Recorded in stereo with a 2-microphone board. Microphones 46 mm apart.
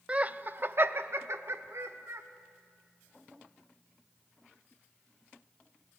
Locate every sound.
0.1 s laughter: 25° right (ahead or behind), 0.5 m; by 2.2 s 70° right (ahead or behind), 1.7 m